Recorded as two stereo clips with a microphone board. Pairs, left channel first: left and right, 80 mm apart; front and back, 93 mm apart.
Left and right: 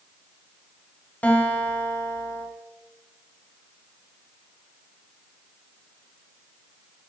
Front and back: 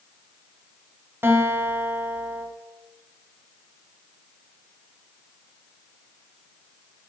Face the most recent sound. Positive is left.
turn(degrees=145)